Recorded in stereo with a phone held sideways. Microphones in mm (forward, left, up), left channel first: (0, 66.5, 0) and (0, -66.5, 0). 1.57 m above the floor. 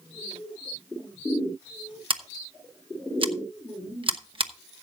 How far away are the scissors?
About 1.0 m.